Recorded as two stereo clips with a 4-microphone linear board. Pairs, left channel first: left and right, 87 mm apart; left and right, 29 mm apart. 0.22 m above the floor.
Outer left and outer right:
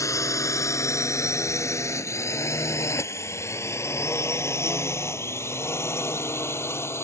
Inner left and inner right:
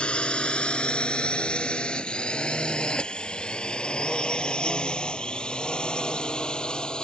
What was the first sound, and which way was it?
A drone, 40° left (ahead or behind).